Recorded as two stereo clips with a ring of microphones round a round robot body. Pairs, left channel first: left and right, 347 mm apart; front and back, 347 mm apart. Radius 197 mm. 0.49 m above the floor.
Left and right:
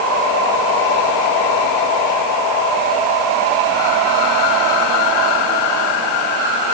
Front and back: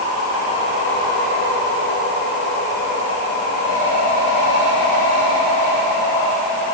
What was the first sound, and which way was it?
Only background noise.